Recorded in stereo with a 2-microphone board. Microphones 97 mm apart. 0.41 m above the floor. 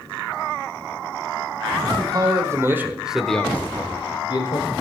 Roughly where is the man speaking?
Right.